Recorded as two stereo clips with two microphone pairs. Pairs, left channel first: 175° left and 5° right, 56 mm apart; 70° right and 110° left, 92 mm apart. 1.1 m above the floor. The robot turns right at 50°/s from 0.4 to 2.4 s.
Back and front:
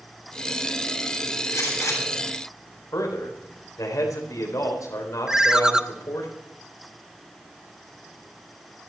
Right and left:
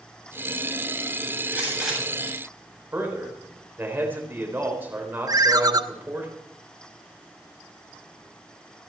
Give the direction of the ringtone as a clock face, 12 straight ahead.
10 o'clock.